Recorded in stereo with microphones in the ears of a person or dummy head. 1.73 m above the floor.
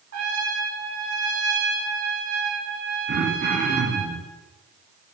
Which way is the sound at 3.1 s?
45° right (ahead or behind).